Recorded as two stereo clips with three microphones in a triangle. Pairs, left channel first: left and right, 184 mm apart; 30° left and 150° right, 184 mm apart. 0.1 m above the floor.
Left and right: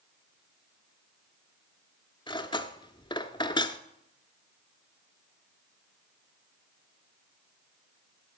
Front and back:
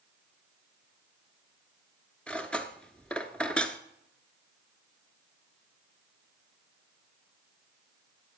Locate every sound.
2.3 s cutlery clinking: 105° left, 0.8 m